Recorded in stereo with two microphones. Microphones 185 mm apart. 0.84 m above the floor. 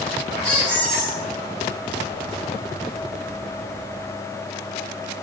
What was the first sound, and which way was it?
A squeak, 5° left (ahead or behind).